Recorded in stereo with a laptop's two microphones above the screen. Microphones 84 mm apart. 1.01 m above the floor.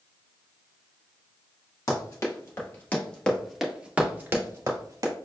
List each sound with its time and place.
1.9 s running footsteps: 35° left (ahead or behind), 1.6 m; by 5.1 s 40° right (ahead or behind), 1.4 m